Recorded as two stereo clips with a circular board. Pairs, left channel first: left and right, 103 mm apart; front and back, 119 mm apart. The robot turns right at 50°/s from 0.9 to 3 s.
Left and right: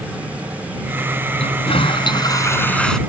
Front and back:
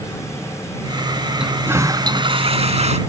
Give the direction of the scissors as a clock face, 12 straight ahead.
No scissors in this recording.